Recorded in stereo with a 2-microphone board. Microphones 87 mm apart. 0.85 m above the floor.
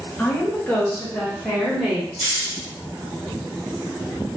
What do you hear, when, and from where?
0.2 s a woman speaking: 20° left (ahead or behind), 0.9 m; by 2.1 s 10° left (ahead or behind), 1.7 m
2.2 s a hiss: 30° left (ahead or behind), 1.3 m